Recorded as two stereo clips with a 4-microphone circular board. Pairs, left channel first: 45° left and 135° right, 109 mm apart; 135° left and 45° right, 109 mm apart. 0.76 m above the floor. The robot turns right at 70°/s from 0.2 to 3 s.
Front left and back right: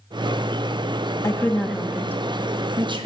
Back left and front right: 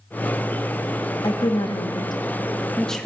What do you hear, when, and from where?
1.2 s a woman speaking: 100° left, 0.7 m; by 3.1 s 135° right, 0.7 m